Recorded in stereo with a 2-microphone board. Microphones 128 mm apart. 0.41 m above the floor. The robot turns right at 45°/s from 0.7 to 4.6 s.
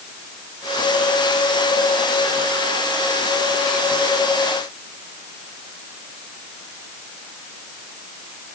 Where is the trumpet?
I don't hear a trumpet.